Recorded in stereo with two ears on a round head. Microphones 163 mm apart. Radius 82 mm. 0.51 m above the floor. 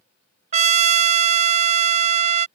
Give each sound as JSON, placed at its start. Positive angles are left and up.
{"t": 0.5, "sound": "a trumpet", "side_deg": -40}